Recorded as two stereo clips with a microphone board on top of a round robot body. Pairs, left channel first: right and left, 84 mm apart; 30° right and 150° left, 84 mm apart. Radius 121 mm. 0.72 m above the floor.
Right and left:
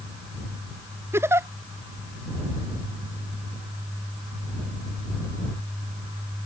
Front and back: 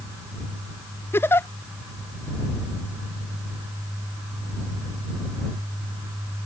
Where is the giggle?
30° left.